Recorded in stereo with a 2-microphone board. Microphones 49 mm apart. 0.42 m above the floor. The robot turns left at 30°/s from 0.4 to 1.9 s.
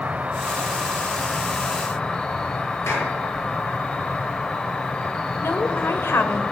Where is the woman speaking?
50° left (ahead or behind), 1.7 m.